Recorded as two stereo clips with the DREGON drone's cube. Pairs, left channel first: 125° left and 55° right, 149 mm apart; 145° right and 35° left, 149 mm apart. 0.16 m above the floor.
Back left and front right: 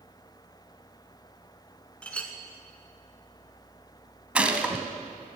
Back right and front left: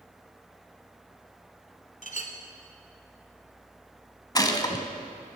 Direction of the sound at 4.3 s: 130° right.